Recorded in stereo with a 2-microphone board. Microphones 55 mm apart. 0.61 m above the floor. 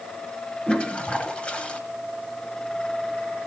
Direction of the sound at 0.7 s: 20° left (ahead or behind).